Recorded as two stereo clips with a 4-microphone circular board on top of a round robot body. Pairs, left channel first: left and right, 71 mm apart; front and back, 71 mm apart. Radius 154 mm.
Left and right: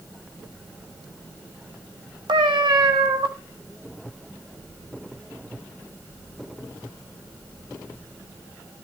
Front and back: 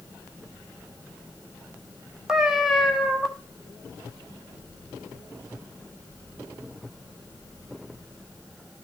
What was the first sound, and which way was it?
A cat meowing, 95° right.